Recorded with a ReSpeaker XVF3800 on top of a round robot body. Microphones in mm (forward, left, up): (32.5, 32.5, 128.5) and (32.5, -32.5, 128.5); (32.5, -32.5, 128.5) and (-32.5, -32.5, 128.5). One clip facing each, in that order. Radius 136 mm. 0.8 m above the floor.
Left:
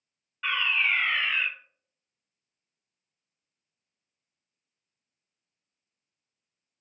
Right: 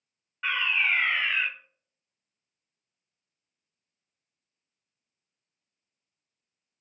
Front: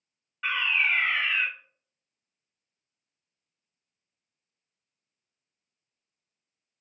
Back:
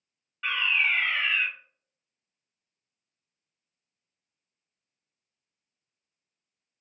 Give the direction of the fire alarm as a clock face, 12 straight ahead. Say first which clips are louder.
Even, even; 2 o'clock.